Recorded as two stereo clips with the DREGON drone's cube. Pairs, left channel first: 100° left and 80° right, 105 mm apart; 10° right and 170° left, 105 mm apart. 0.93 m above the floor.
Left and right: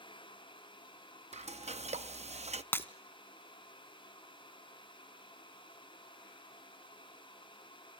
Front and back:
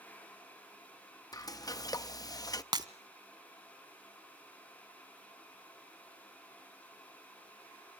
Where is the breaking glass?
160° left, 1.0 m.